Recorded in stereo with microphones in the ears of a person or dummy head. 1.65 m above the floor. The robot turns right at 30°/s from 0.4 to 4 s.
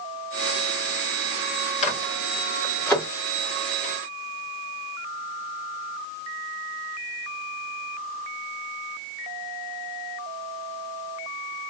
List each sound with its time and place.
1.8 s a microwave: 45° left (ahead or behind), 1.3 m; by 3.1 s 10° left (ahead or behind), 1.3 m